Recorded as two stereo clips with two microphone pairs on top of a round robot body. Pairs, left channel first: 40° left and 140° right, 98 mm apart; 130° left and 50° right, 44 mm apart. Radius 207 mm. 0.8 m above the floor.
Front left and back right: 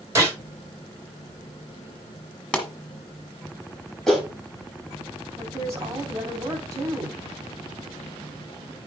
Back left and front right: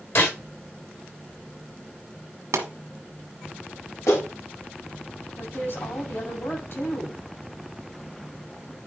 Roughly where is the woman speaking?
Behind.